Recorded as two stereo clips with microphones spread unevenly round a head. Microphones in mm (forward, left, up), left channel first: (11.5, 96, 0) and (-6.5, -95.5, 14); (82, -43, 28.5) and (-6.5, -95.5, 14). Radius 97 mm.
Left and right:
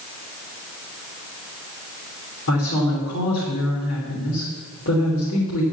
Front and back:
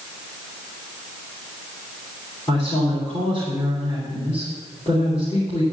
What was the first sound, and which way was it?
A woman speaking, 110° left.